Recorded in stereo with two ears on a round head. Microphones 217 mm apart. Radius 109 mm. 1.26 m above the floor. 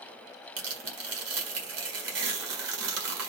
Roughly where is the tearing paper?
Right.